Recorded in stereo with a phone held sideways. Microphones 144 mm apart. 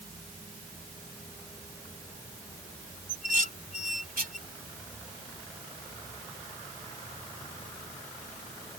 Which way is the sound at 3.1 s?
80° right.